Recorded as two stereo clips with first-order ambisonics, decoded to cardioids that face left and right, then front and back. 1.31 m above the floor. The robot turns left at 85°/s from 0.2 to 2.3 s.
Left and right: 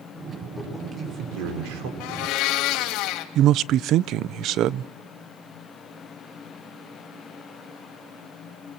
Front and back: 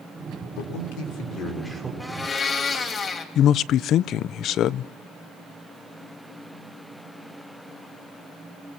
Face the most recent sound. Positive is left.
turn(degrees=-50)